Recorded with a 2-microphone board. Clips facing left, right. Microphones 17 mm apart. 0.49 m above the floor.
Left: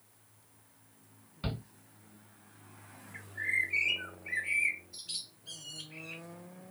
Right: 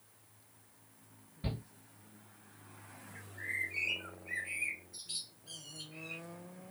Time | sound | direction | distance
1.4 | a shout | 65° left (ahead or behind) | 2.5 m
3.1 | a bird | 45° left (ahead or behind) | 2.5 m